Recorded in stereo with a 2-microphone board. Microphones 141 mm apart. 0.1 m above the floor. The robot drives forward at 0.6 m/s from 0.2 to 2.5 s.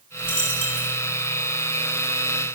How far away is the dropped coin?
About 4 m.